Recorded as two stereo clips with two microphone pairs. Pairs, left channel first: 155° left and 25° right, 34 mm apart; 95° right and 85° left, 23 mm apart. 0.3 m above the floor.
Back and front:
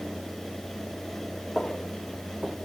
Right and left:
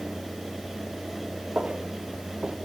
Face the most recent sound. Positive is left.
turn(degrees=40)